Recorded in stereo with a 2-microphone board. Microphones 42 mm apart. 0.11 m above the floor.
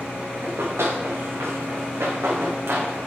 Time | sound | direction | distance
0.4 | running footsteps | 85° right | 2.5 m